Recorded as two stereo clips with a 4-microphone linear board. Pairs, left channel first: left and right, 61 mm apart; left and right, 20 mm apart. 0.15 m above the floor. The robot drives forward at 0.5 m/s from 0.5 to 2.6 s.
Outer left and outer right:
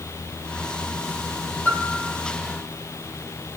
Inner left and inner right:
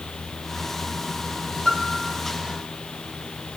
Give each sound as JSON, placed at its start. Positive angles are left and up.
{"t": 1.6, "sound": "a piano", "side_deg": 35, "distance_m": 4.5}